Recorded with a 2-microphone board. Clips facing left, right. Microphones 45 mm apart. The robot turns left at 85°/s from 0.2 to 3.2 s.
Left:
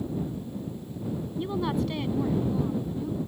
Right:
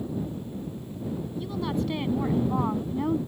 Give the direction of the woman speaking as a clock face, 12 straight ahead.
11 o'clock.